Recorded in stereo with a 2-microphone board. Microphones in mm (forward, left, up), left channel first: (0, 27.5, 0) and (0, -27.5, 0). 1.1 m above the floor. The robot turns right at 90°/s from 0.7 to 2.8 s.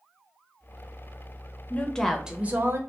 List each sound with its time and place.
1.7 s a woman speaking: 145° left, 0.6 m; by 2.8 s 115° right, 0.6 m